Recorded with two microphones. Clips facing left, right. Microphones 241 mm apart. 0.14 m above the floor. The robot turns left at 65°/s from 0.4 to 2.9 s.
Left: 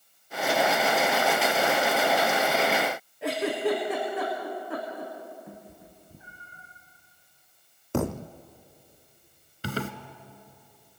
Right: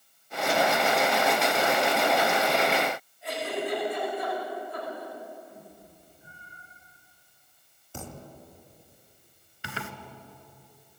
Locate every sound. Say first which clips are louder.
3.2 s a giggle: left 6 dB; 80° left, 6 m
5.5 s a cat meowing: left 2 dB; 80° left, 3.5 m
7.9 s a thud: left 14 dB; 65° left (ahead or behind), 0.8 m
9.6 s a zipper: left 8 dB; 40° left (ahead or behind), 1.2 m